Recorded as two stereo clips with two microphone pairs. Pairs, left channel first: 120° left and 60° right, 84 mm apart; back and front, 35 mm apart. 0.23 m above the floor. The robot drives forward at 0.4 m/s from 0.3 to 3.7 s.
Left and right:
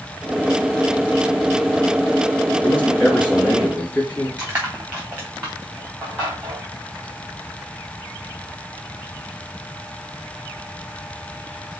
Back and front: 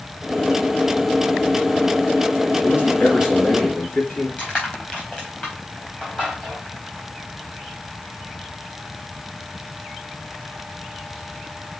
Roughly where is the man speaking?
Behind.